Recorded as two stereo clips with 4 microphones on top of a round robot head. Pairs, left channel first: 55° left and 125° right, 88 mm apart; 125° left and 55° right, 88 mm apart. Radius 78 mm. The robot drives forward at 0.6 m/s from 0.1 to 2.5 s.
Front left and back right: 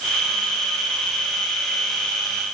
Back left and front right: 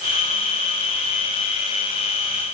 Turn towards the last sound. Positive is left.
No sound to turn to.